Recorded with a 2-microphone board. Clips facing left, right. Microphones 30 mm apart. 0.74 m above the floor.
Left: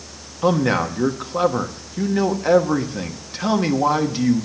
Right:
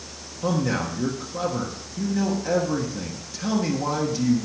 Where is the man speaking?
35° left (ahead or behind), 1.2 m.